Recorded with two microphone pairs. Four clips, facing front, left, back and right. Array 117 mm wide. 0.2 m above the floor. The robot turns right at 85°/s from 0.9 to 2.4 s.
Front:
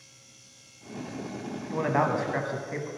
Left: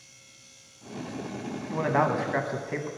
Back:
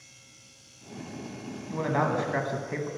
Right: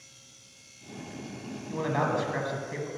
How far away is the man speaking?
About 1.1 m.